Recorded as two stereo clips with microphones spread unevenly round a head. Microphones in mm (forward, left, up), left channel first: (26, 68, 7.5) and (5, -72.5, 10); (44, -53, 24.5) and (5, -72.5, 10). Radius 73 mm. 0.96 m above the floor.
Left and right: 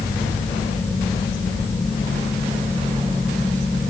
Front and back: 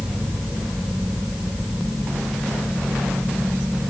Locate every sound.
Only background noise.